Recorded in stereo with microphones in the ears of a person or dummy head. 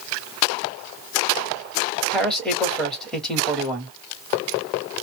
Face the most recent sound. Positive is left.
turn(degrees=0)  # may be behind; listen again after turning